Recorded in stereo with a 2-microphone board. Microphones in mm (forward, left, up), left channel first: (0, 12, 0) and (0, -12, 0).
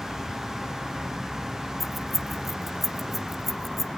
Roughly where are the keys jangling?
Centre.